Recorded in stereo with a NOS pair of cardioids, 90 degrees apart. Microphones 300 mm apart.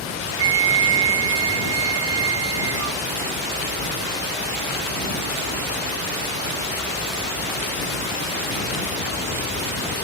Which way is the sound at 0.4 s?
50° right.